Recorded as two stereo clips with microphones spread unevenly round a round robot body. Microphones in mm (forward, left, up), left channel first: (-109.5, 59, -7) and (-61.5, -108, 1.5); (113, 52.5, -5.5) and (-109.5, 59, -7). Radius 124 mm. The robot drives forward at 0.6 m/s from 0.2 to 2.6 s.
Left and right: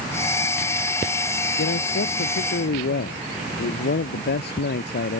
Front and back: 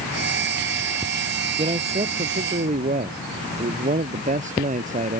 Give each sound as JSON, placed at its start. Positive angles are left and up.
{"t": 1.6, "sound": "a man speaking", "azimuth_deg": 115}